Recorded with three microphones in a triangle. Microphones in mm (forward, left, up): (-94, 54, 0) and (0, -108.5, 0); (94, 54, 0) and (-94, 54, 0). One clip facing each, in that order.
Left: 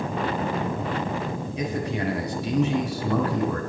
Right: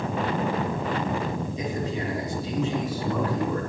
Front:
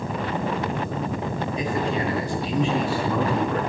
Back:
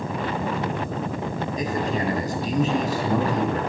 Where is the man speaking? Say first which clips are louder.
Left 2 dB, even; 135° left, 3.5 m.